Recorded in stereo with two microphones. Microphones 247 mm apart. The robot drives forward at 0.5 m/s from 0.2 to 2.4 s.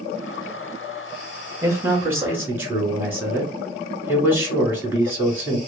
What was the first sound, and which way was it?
A man speaking, 10° right (ahead or behind).